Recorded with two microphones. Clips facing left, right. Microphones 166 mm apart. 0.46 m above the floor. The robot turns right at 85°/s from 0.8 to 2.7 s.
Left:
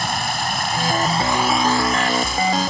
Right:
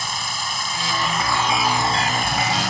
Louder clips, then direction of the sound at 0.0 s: Left 7 dB; 115° left.